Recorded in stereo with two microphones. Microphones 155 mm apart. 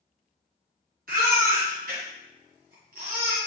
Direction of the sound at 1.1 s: 75° right (ahead or behind).